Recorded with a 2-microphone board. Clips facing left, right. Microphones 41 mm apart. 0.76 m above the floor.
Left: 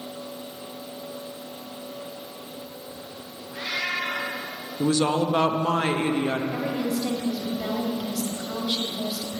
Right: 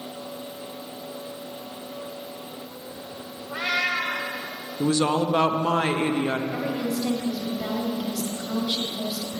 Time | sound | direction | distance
3.5 | a cat meowing | 80° right | 2 m
4.8 | a woman speaking | 20° right (ahead or behind) | 0.5 m
6.5 | a woman speaking | 10° left (ahead or behind) | 1.5 m